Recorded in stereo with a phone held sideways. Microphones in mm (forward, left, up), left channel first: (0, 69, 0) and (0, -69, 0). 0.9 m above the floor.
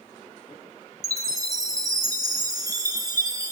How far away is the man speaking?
No man speaking in this recording.